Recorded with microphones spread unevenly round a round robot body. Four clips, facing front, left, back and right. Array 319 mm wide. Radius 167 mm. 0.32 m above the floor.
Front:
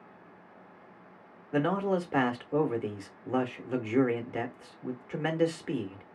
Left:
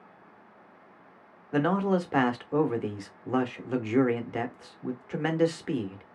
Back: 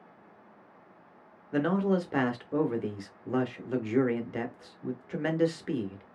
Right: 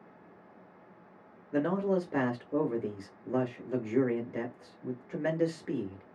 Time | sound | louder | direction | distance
1.5 | a man speaking | left 3 dB, back 1 dB | 100° left | 0.8 m